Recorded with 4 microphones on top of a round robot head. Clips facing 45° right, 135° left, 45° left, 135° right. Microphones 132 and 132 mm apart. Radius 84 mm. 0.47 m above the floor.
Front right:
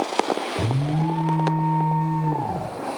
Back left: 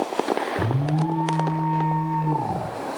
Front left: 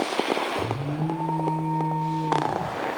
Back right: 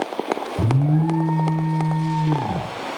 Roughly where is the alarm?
Behind right.